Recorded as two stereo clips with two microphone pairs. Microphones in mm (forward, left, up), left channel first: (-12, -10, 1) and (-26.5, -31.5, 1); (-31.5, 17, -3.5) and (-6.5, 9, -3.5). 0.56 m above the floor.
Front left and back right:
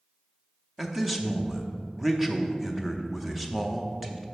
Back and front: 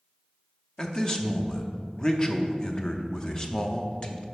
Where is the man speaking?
165° left, 0.7 m.